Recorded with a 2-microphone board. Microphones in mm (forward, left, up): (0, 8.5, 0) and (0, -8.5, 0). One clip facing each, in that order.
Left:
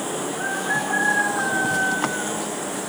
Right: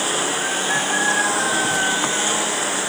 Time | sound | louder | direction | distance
0.0 | a lawn mower | right 5 dB | 50° right (ahead or behind) | ?